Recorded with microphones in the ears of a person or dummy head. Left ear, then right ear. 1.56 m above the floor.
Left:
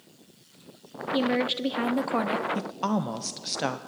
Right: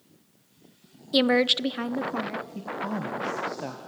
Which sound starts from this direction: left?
A woman speaking, at 2.5 s.